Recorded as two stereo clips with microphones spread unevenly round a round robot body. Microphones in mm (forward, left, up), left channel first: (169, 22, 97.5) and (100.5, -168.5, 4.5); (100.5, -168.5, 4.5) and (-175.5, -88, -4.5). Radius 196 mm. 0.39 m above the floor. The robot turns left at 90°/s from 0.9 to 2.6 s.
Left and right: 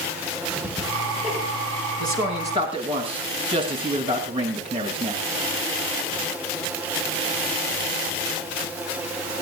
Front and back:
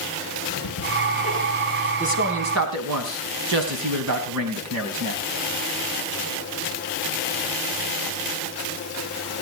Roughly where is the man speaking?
Behind right.